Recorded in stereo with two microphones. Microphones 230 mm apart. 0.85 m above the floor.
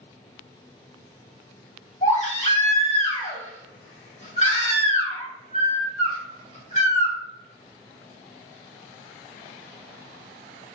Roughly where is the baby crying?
Left.